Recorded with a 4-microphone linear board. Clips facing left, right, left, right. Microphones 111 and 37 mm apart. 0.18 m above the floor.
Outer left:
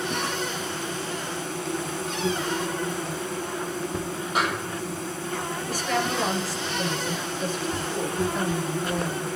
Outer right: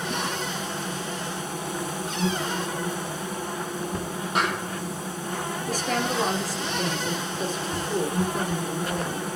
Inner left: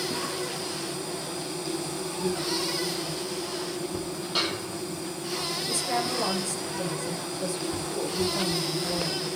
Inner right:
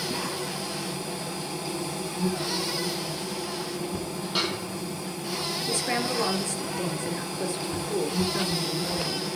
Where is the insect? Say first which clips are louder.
Outer left 1 dB, even; 15° right (ahead or behind), 5 m.